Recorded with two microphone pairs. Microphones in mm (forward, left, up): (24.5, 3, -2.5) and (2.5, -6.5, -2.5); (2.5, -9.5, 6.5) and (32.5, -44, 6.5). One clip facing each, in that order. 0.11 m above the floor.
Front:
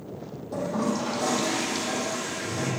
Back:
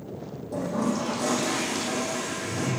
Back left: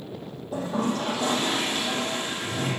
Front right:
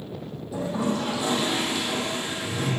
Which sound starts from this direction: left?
A toilet flushing, at 0.5 s.